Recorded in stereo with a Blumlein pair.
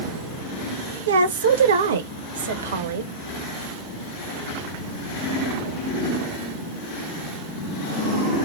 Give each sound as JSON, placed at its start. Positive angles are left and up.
{"t": 1.1, "sound": "a woman speaking", "azimuth_deg": -65, "distance_m": 0.8}